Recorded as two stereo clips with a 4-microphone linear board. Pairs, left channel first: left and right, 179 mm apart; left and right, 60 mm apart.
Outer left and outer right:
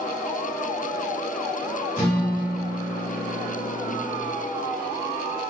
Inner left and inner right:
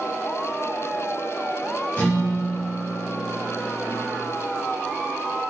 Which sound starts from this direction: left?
A guitar, at 2.0 s.